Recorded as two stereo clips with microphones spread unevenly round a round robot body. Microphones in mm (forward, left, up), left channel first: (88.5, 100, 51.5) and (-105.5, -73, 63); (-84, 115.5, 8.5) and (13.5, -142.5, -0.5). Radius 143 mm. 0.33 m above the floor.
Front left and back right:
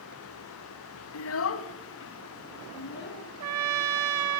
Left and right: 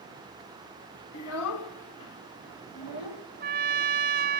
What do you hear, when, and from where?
1.1 s a child speaking: 65° left, 1.9 m; by 3.2 s 90° left, 4 m
3.4 s a trumpet: 125° right, 1.2 m